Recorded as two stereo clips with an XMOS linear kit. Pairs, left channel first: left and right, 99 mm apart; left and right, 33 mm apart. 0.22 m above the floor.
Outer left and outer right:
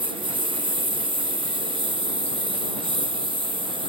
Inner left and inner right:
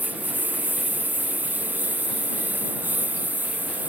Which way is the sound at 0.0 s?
60° right (ahead or behind).